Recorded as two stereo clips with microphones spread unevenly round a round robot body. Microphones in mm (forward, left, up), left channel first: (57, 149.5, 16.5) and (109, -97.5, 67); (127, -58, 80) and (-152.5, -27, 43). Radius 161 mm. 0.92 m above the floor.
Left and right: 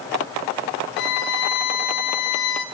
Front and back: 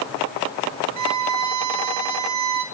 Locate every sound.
1.0 s a violin: 155° left, 2.5 m